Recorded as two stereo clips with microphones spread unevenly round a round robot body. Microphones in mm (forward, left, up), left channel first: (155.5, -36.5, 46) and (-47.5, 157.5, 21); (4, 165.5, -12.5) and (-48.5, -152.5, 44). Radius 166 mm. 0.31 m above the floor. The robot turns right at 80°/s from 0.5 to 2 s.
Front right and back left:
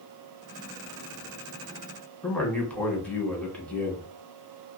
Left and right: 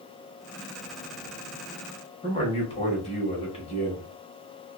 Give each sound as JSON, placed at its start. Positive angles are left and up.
{"t": 2.2, "sound": "a man speaking", "azimuth_deg": 45, "distance_m": 1.2}